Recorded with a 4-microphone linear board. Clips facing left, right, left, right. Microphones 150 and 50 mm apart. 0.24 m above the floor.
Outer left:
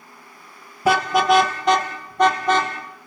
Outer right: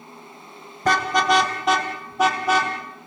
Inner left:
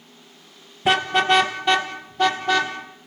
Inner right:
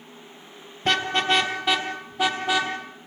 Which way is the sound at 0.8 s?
10° left (ahead or behind).